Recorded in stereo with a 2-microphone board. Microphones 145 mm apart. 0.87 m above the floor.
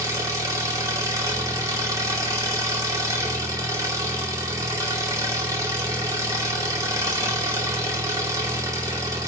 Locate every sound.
0.0 s an engine running: 25° right (ahead or behind), 2.5 m